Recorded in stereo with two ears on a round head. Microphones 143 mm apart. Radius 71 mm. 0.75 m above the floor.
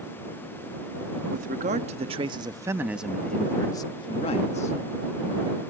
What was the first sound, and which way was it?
A man speaking, 55° right (ahead or behind).